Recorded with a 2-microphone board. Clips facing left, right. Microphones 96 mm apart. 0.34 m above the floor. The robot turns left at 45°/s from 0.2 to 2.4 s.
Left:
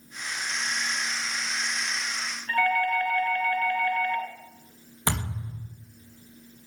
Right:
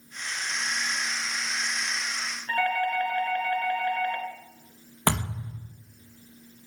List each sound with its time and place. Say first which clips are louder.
2.5 s a doorbell: left 2 dB; 30° right (ahead or behind), 3.5 m
5.1 s a thud: right 3 dB; 65° right (ahead or behind), 3.5 m